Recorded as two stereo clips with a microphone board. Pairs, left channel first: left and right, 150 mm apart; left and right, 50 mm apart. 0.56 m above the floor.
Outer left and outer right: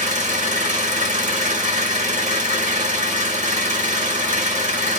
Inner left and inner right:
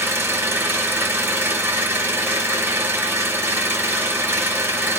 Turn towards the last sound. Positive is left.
turn(degrees=-50)  # may be behind; listen again after turning